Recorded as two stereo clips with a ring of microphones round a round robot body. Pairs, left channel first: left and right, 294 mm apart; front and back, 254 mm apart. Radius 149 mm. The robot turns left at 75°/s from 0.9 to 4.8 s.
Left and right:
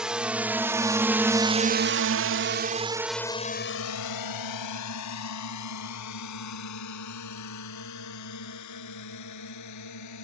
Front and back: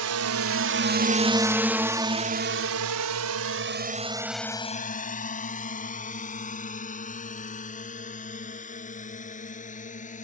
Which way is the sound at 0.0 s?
175° right.